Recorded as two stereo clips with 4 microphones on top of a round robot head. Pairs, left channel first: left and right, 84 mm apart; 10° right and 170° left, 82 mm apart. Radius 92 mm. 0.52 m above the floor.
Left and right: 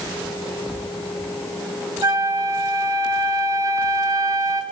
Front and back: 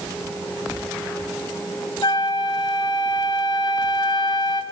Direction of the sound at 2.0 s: 40° right.